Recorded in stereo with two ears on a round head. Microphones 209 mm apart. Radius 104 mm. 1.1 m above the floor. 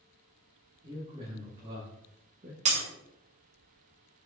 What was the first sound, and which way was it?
A man speaking, 25° right (ahead or behind).